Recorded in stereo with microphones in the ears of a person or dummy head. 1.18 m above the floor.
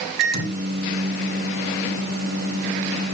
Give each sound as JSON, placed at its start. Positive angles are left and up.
{"t": 0.2, "sound": "a microwave", "side_deg": -65, "distance_m": 3.5}